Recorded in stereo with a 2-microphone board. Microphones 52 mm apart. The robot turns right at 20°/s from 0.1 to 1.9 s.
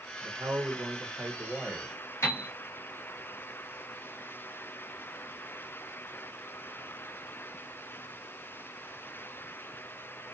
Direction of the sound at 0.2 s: 55° right.